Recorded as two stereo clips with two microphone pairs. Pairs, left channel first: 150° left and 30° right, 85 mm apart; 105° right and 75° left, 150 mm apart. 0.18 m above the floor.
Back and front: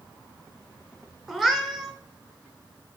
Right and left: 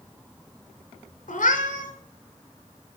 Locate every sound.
1.3 s a cat meowing: 115° right, 0.9 m